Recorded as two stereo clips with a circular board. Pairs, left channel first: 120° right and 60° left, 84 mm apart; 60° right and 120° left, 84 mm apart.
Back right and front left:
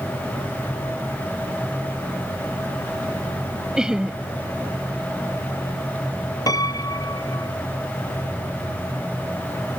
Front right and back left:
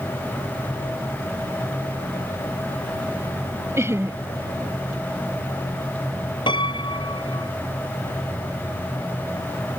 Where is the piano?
75° right.